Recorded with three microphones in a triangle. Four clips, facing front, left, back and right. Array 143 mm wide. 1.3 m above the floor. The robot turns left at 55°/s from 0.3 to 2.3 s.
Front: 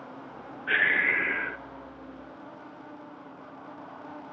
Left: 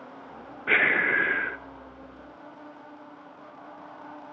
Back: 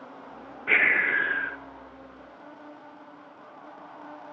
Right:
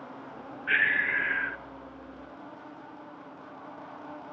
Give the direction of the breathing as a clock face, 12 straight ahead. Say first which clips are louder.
Left 3 dB, back 1 dB; 8 o'clock.